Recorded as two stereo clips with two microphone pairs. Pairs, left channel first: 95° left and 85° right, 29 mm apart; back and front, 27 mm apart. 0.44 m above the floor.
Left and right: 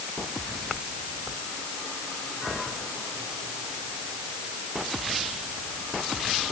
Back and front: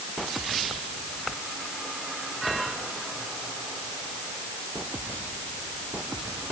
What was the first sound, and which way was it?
Only background noise.